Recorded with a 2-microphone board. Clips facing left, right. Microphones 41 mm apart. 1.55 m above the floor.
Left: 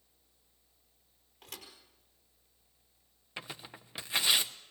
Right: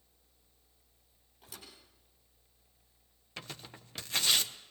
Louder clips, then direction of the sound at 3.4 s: Left 2 dB; 15° left (ahead or behind).